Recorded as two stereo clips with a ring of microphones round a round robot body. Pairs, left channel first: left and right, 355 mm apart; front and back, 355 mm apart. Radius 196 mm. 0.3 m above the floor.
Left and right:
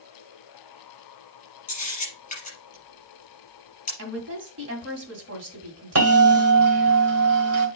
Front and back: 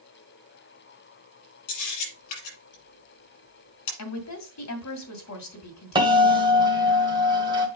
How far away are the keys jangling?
No keys jangling in this recording.